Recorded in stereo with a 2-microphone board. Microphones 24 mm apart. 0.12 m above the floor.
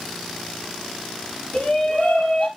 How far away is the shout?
About 3 m.